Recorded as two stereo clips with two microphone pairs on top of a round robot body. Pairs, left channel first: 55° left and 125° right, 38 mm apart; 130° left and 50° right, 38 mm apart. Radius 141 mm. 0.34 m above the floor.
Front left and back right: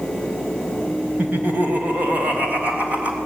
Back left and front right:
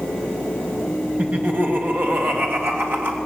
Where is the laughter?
90° right, 3 m; by 3.2 s 75° right, 4 m.